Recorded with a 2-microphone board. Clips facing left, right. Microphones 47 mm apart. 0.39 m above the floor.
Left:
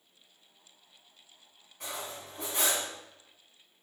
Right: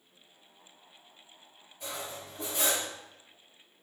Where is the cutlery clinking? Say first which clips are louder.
Even; 80° left, 1.7 m.